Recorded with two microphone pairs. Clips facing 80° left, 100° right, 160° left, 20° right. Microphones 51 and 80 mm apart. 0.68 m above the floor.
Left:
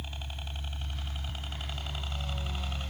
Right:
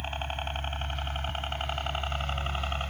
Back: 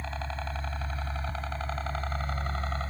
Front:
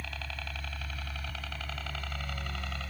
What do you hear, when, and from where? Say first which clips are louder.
0.0 s a helicopter: right 9 dB, back 6 dB; 140° right; by 2.9 s 145° right